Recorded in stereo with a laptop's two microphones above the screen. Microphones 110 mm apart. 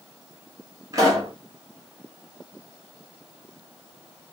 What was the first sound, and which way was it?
A pop, 30° right (ahead or behind).